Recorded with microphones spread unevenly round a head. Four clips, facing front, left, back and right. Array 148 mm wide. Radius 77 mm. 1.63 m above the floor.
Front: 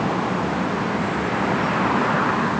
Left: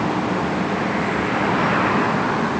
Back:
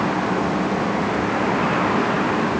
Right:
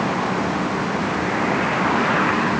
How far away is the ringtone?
I don't hear a ringtone.